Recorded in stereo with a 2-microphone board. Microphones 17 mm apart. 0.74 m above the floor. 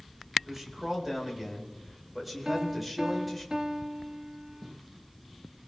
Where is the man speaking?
20° right (ahead or behind), 4.5 m; by 3.5 s 5° left (ahead or behind), 4.5 m.